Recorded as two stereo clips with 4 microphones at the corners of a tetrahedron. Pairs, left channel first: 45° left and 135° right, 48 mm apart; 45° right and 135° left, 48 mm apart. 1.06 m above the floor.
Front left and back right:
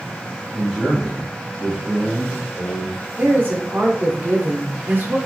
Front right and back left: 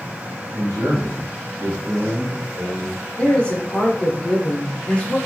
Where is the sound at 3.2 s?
105° right, 0.9 m.